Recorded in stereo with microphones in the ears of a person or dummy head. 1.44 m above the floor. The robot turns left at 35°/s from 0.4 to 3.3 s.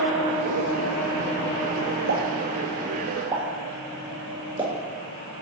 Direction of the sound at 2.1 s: 60° right (ahead or behind).